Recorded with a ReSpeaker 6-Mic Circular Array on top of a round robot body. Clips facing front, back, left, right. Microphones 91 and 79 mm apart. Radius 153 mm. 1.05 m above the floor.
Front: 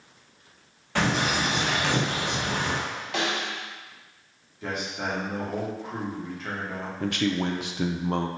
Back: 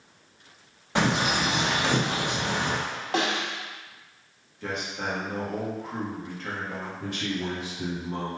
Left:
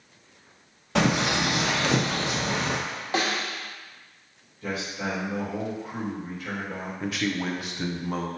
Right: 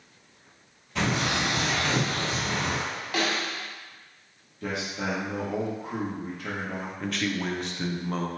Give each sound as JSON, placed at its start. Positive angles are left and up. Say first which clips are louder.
{"t": 0.9, "sound": "a bird", "louder": "back 1 dB, left 4 dB", "azimuth_deg": 110, "distance_m": 0.8}
{"t": 3.1, "sound": "a snare drum", "louder": "back 2 dB, left 1 dB", "azimuth_deg": 145, "distance_m": 1.1}
{"t": 4.6, "sound": "a man speaking", "louder": "front 1 dB, even", "azimuth_deg": -85, "distance_m": 1.6}
{"t": 7.0, "sound": "a man speaking", "louder": "front 7 dB, left 2 dB", "azimuth_deg": 5, "distance_m": 0.6}